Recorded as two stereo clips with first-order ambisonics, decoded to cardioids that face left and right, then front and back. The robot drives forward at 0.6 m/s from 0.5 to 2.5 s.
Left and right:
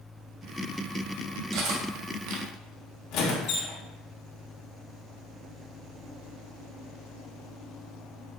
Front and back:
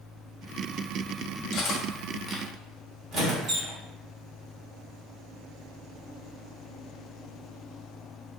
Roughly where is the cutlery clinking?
Ahead right.